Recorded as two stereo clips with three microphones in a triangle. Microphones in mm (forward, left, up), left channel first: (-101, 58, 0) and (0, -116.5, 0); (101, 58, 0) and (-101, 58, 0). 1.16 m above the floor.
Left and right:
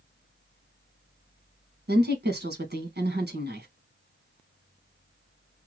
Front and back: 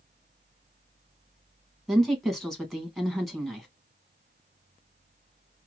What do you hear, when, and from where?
1.9 s a woman speaking: 90° right, 1.3 m